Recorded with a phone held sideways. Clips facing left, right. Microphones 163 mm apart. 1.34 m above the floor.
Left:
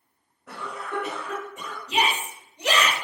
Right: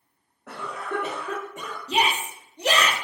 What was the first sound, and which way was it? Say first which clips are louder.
A cough: right 3 dB; 75° right (ahead or behind).